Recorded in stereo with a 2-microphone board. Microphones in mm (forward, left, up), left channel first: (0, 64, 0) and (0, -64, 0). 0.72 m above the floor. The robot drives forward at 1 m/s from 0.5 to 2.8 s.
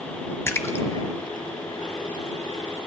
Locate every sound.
0.5 s a splash: 20° left (ahead or behind), 0.6 m